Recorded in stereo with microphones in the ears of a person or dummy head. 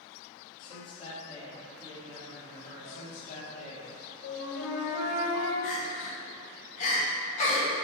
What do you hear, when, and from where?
0.6 s a man speaking: 35° left (ahead or behind), 2.5 m; by 3.1 s 25° left (ahead or behind), 4 m
2.9 s a man speaking: 45° left (ahead or behind), 2.5 m
4.2 s a flute: 80° left, 3 m
5.6 s crying: 45° left (ahead or behind), 3 m